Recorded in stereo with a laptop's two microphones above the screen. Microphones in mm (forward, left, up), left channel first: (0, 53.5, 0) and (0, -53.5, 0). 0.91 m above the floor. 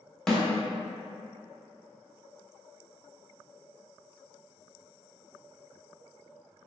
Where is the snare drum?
5° left (ahead or behind), 0.6 m.